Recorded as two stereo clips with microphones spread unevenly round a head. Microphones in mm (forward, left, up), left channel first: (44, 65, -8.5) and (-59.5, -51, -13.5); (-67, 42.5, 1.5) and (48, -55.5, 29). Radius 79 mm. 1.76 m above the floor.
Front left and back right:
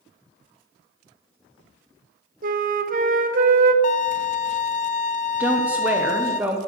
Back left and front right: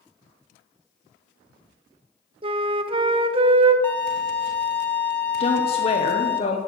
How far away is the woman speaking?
About 0.6 m.